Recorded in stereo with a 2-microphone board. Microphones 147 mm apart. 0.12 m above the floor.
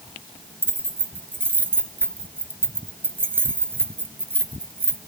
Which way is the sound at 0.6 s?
15° right (ahead or behind).